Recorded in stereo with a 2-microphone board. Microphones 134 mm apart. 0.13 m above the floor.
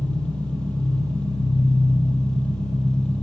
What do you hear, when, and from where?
0.0 s an engine running: 10° left (ahead or behind), 3.5 m